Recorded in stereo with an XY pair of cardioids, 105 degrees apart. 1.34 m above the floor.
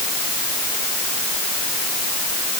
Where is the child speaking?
I don't hear a child speaking.